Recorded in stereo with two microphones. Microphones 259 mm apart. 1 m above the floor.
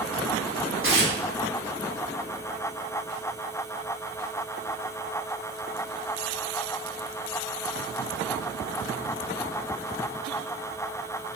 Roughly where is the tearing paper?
Right.